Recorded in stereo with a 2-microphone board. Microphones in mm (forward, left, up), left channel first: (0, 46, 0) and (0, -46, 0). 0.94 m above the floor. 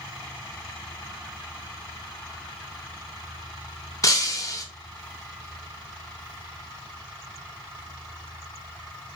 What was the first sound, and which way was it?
Breaking glass, 40° left (ahead or behind).